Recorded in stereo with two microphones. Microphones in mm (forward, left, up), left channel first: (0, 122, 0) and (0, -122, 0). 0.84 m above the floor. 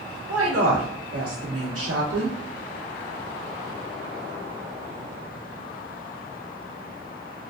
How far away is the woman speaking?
About 1.4 m.